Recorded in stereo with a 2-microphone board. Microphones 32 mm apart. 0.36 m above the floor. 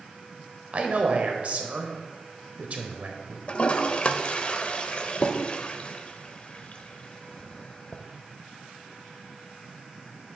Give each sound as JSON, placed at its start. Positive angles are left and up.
{"t": 0.7, "sound": "a man speaking", "side_deg": -45, "distance_m": 1.1}
{"t": 3.5, "sound": "a toilet flushing", "side_deg": 40, "distance_m": 0.5}